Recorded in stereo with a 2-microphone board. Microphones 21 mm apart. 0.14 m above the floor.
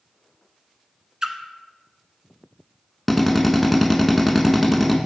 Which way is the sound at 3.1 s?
Centre (ahead or behind).